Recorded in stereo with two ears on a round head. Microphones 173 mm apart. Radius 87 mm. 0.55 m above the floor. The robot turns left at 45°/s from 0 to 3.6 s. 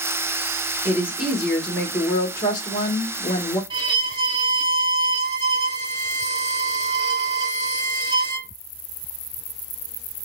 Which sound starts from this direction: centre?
A woman speaking, at 0.8 s.